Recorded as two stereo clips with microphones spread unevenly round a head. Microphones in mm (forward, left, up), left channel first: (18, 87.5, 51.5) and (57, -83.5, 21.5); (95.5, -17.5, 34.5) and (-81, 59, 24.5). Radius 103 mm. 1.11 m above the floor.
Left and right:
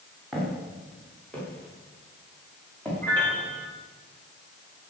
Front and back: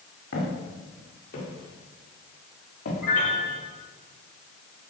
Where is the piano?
20° left, 6 m.